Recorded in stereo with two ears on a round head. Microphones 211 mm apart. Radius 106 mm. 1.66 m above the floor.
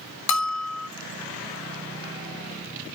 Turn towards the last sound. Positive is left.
turn(degrees=80)